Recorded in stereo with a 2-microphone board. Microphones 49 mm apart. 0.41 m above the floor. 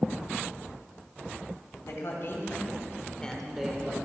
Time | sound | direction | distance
1.8 | a man speaking | 65° left (ahead or behind) | 2.5 m